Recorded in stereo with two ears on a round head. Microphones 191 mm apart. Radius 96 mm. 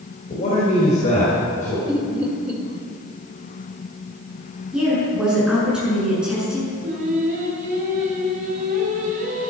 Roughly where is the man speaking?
Left.